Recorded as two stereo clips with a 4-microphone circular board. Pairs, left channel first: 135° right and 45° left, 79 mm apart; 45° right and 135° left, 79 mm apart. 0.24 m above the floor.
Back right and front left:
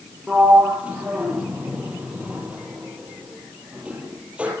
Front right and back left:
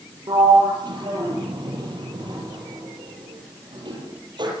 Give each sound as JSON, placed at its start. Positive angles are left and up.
{"t": 0.3, "sound": "a sliding door", "azimuth_deg": 120, "distance_m": 8.0}